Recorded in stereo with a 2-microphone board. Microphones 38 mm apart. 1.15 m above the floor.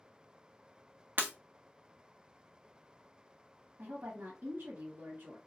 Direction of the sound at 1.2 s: 50° right (ahead or behind).